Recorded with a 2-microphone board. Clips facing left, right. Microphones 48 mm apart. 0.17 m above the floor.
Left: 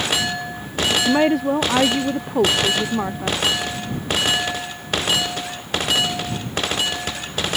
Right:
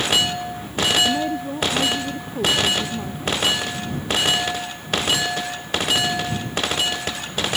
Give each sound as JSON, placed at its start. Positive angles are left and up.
{"t": 0.9, "sound": "a woman speaking", "side_deg": 65}